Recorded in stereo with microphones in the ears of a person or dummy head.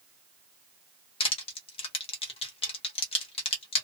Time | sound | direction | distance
1.2 | crushing | 25° left (ahead or behind) | 0.6 m